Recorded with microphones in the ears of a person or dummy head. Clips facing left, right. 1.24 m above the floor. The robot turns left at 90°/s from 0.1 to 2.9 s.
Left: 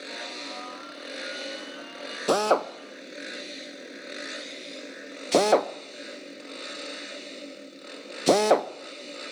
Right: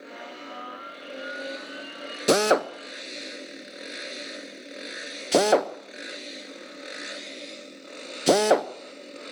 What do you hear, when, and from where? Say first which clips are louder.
2.3 s a drill: right 2 dB; 25° right (ahead or behind), 0.6 m; by 8.7 s 5° right (ahead or behind), 0.6 m